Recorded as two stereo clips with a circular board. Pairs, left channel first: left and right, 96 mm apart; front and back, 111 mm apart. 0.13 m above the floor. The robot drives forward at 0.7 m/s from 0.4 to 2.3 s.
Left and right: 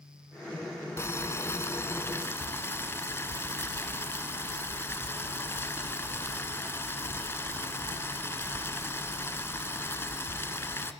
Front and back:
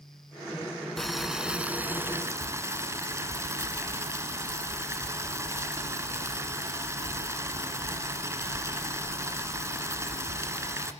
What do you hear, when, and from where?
1.0 s boiling: 85° left, 1.8 m; by 10.9 s 135° left, 2.0 m